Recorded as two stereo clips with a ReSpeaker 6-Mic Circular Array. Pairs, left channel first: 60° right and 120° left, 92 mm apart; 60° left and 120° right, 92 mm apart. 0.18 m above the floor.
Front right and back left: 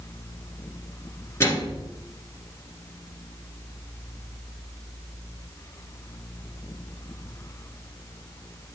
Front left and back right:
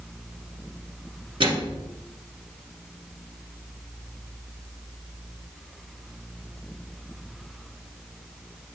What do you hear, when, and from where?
1.4 s a microwave: 115° right, 1.9 m